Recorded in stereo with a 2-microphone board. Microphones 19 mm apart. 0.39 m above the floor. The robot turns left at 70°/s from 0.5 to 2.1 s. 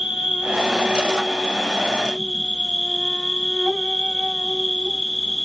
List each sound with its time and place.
0.0 s an insect: 45° right, 1.6 m; by 5.5 s 155° right, 1.6 m